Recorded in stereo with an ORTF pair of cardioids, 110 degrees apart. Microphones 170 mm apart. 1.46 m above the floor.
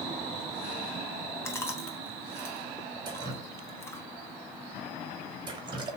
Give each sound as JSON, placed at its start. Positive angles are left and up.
{"t": 1.4, "sound": "chewing", "azimuth_deg": 15, "distance_m": 1.8}
{"t": 3.0, "sound": "dripping", "azimuth_deg": -25, "distance_m": 2.5}